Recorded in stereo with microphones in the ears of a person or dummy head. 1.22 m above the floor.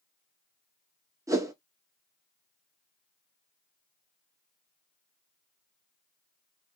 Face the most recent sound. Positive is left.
turn(degrees=-20)  # may be behind; listen again after turning